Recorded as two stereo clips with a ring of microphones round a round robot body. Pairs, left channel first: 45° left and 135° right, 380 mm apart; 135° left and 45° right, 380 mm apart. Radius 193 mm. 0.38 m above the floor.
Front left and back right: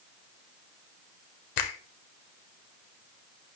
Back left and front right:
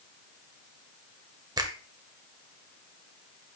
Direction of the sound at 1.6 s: 35° left.